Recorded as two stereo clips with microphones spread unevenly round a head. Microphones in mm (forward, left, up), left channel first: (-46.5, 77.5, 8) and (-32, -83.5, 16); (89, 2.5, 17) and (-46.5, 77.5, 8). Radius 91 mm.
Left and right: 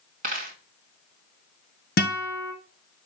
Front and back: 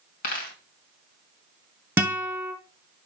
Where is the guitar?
70° left, 1.8 m.